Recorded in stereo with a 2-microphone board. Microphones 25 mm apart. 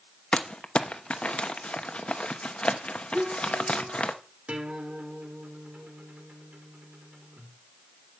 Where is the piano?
5° right (ahead or behind), 2.5 m.